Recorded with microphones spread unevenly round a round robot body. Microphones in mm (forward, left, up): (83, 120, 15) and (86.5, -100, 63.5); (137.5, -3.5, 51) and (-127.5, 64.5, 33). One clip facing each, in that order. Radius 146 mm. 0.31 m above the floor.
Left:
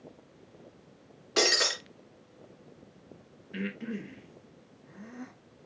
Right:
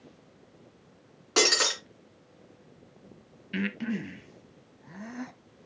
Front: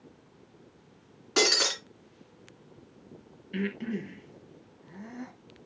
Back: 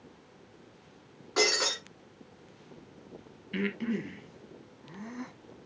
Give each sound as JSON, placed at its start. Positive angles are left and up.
{"t": 1.4, "sound": "breaking glass", "azimuth_deg": -60, "distance_m": 2.5}
{"t": 3.5, "sound": "breathing", "azimuth_deg": -115, "distance_m": 0.7}